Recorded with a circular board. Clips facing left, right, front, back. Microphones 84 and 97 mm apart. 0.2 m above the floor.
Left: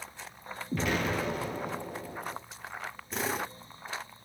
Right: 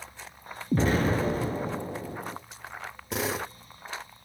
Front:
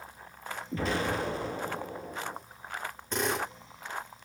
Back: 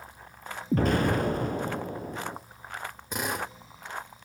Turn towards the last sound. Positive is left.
turn(degrees=-100)